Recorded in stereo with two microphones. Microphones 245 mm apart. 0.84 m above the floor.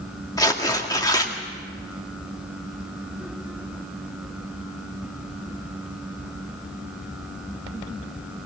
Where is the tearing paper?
15° left (ahead or behind), 1.9 m.